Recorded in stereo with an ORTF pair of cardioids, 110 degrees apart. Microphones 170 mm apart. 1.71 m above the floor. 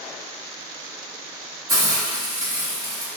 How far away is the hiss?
About 1.5 m.